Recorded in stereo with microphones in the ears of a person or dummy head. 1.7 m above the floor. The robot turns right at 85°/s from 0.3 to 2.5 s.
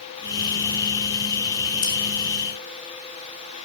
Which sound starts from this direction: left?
Scissors, at 1.8 s.